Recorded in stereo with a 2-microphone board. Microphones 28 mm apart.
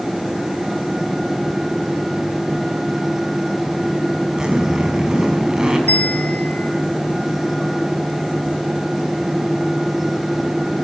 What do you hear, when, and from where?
4.4 s a zipper: 25° right (ahead or behind), 6.5 m
5.9 s a bell: 80° left, 5 m